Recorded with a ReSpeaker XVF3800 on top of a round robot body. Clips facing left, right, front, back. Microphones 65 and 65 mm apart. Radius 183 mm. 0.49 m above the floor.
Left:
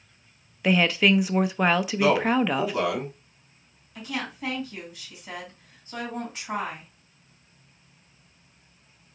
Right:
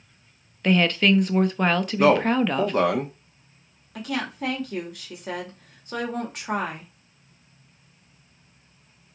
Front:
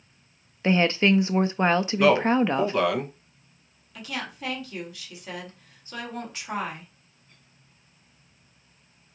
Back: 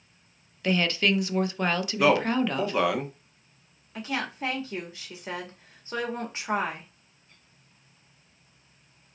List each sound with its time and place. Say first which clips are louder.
0.6 s a woman speaking: right 1 dB, front 4 dB; 15° left, 0.7 m
2.0 s a man speaking: right 4 dB, front 2 dB; 100° right, 1.4 m
4.0 s a woman speaking: right 4 dB, back 3 dB; 120° right, 1.9 m